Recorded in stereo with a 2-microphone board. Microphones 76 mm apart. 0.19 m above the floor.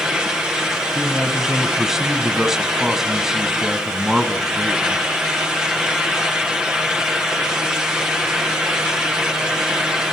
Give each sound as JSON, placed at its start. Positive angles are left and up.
{"t": 0.9, "sound": "a man speaking", "side_deg": -5, "distance_m": 1.0}